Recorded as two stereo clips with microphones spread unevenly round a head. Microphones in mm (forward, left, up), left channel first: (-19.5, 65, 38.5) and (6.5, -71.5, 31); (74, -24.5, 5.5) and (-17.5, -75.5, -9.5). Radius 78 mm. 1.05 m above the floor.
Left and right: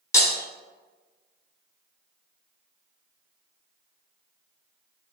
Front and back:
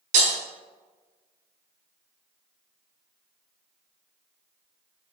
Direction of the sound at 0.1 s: 170° left.